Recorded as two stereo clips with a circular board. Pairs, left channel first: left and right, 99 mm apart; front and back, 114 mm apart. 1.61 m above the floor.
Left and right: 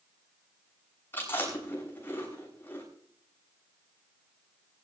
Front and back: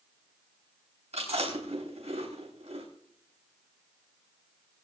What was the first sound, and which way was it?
Chewing, 160° left.